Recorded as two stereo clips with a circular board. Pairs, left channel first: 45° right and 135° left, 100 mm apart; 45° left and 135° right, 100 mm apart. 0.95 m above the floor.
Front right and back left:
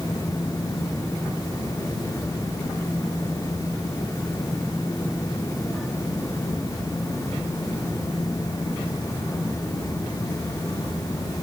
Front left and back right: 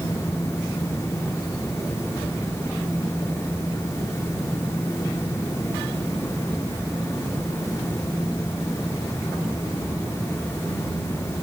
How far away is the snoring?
I don't hear snoring.